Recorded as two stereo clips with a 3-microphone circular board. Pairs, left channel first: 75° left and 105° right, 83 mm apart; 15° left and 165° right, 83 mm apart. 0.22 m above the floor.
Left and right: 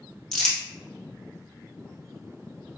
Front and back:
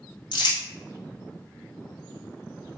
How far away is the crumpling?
About 1.6 m.